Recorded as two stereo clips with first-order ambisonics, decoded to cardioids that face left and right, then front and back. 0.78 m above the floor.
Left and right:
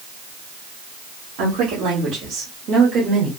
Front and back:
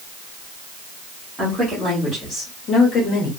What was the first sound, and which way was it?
A woman speaking, 90° right.